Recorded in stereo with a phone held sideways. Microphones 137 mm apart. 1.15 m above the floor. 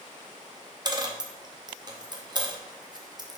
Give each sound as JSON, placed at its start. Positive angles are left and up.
{"t": 0.8, "sound": "a dropped coin", "side_deg": -30, "distance_m": 0.6}